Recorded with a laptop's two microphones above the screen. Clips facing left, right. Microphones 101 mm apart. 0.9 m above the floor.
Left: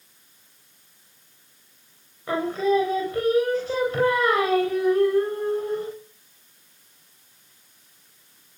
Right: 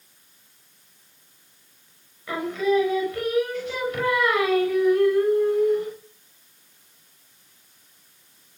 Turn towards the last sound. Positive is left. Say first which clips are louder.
# left 1 dB
turn(degrees=30)  # may be behind; listen again after turning